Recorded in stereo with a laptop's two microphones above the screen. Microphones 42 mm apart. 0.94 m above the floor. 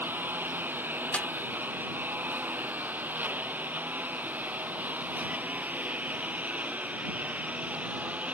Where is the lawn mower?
50° right (ahead or behind); by 8.3 s 35° right (ahead or behind).